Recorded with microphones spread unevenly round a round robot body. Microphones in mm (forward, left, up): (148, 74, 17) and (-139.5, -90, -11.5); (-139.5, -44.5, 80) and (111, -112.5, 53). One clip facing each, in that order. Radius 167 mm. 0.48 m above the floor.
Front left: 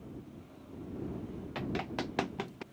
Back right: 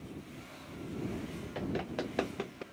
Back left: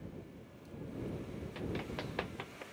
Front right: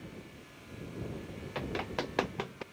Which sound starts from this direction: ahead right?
Running footsteps, at 1.6 s.